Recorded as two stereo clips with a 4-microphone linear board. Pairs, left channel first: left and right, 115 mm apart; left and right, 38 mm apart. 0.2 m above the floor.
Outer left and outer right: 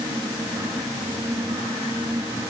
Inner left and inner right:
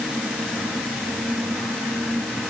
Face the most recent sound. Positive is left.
No sound to turn to.